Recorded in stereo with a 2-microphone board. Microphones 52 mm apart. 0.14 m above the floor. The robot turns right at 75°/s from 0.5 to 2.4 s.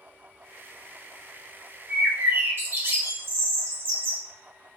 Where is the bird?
125° right, 0.9 m; by 4.2 s 90° right, 0.9 m.